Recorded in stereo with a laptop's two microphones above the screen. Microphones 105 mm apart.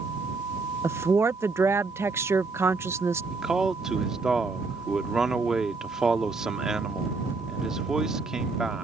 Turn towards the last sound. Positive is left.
turn(degrees=-5)  # may be behind; listen again after turning